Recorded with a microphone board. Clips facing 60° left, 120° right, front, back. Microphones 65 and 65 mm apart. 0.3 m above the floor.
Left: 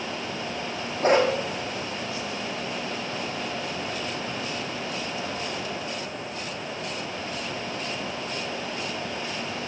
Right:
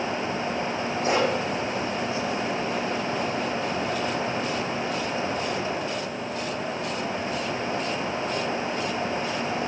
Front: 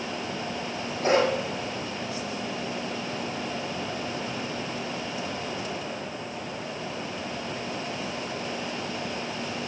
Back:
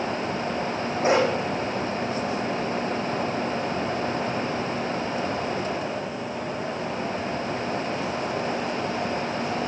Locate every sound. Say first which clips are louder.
1.0 s a dog barking: left 4 dB, back 1 dB; 105° left, 5.5 m